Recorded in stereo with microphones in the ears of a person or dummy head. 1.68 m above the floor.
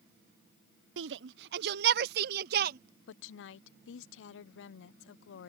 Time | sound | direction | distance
1.0 | a shout | 75° right (ahead or behind) | ?
3.1 | a woman speaking | 75° left (ahead or behind) | ?